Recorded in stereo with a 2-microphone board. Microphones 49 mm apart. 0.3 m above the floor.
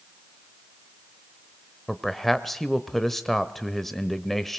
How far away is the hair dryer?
I don't hear a hair dryer.